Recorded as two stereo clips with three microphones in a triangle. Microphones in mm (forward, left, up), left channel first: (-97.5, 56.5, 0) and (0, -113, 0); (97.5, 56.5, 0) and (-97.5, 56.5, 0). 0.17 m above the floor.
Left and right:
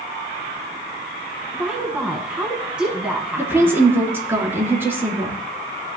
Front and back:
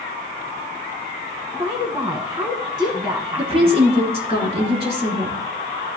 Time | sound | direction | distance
1.5 | a woman speaking | 140° right | 1.3 m
3.4 | a woman speaking | 135° right | 2 m